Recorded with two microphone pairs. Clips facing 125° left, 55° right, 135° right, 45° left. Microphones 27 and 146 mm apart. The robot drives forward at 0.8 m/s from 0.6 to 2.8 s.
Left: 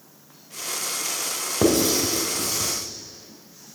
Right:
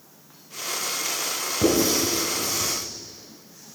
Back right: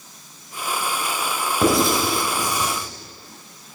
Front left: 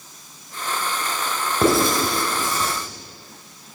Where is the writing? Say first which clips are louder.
Left 1 dB, even; 130° left, 1.1 m; by 2.7 s 150° left, 1.8 m.